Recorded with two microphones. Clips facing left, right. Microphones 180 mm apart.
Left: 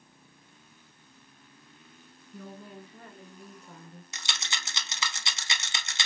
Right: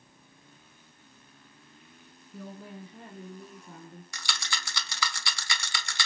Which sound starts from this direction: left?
A rattle, at 4.1 s.